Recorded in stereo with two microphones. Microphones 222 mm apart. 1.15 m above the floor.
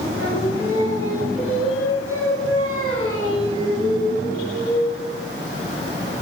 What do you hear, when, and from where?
0.2 s singing: 80° right, 4.5 m